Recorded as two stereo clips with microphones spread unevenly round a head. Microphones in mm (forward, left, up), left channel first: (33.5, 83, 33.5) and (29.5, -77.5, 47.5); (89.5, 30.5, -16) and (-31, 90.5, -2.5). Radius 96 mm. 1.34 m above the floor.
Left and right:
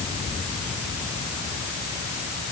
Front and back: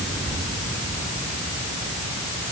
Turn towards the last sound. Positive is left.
No sound to turn to.